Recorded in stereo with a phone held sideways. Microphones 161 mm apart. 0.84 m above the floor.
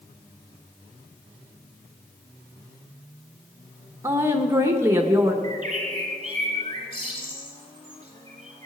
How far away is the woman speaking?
About 1.0 m.